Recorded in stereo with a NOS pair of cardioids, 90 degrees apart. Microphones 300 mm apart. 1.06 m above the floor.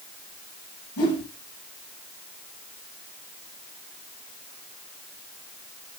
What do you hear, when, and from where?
1.0 s a whoosh: 65° left, 2.5 m